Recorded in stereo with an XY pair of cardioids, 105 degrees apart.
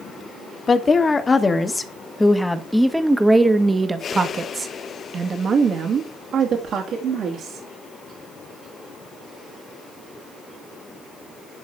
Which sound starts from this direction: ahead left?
A woman speaking, at 0.7 s.